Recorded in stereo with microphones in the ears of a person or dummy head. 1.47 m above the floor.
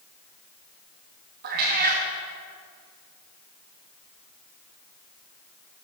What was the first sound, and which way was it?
A cat meowing, 35° right (ahead or behind).